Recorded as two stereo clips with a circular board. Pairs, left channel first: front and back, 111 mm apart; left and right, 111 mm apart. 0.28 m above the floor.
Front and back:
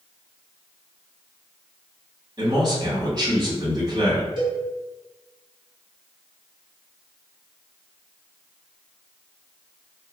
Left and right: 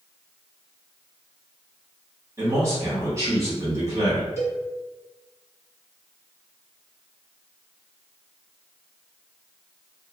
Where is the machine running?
I don't hear a machine running.